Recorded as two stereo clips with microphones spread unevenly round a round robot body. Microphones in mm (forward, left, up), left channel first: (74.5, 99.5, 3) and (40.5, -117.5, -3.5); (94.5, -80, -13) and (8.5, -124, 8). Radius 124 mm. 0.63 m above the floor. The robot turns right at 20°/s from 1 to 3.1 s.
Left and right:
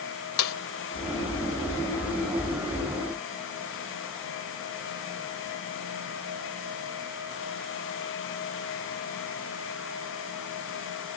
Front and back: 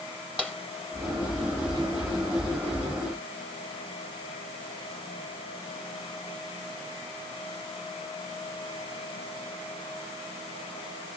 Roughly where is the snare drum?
Behind left.